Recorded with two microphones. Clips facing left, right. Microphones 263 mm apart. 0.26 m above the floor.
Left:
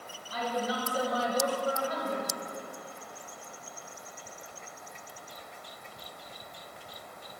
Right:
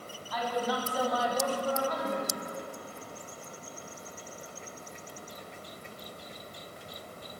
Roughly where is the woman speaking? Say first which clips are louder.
Right 1 dB; left.